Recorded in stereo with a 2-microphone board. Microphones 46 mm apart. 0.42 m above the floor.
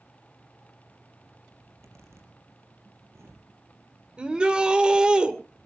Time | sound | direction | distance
1.6 | a zipper | 85° right | 4.5 m
4.2 | a shout | 20° right (ahead or behind) | 1.8 m